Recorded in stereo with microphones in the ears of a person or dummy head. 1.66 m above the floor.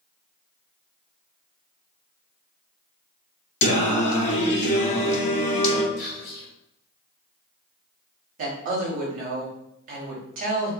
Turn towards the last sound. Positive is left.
turn(degrees=-45)  # may be behind; listen again after turning